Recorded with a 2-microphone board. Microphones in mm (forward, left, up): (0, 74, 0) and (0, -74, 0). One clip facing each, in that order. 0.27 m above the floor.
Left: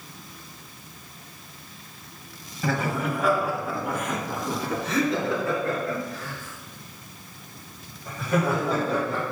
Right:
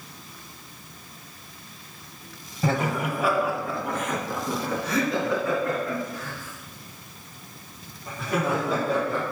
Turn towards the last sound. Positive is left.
turn(degrees=40)  # may be behind; listen again after turning